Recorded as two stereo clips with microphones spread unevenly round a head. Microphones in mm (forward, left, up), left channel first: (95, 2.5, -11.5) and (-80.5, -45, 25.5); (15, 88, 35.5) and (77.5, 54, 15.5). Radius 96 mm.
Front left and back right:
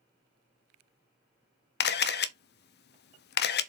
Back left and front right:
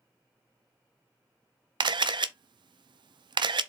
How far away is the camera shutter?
About 0.7 m.